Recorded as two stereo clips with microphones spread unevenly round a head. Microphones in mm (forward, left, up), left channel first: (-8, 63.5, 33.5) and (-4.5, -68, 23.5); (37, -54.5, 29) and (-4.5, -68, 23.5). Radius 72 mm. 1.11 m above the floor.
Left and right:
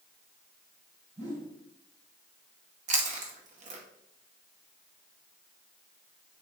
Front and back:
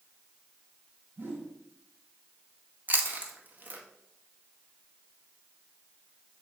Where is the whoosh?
125° right, 3.5 m.